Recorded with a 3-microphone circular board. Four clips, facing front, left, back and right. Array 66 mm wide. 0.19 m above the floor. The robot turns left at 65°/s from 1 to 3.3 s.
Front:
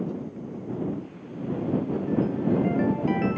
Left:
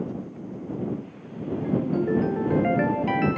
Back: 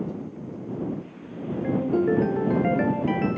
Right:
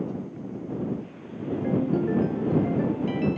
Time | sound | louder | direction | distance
1.6 | a ringtone | even, back 6 dB | 165° right | ?